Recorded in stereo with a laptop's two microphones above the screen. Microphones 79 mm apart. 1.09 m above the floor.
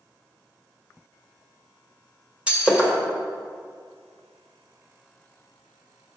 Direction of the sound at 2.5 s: 15° right (ahead or behind).